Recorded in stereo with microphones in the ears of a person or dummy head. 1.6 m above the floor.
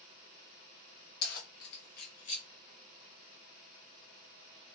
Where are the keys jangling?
60° left (ahead or behind), 1.1 m; by 2.5 s 35° left (ahead or behind), 1.3 m.